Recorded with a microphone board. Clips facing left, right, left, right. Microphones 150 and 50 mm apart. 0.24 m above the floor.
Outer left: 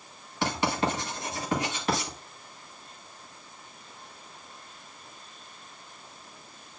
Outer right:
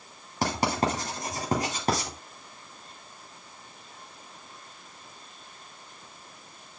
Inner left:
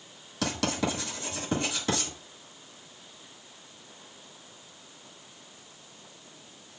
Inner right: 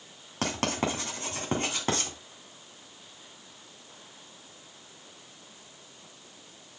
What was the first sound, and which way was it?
Writing, 40° right (ahead or behind).